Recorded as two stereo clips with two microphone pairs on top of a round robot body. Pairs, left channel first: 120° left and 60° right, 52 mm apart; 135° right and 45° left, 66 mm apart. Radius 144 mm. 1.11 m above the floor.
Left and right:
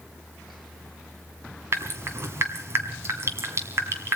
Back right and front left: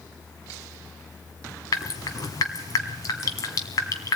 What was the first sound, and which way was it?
Dripping, 100° right.